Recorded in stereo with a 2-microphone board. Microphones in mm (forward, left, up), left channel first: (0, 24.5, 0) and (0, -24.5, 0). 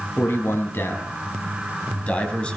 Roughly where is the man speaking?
Left.